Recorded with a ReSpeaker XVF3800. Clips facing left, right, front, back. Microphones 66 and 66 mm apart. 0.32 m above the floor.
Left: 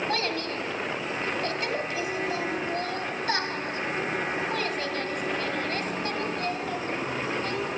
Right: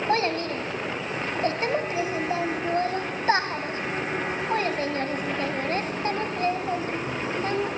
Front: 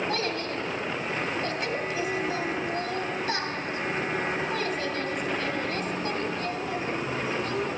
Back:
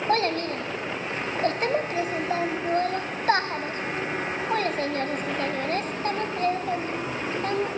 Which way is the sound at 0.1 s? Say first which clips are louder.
Right 5 dB, back 5 dB; 145° right.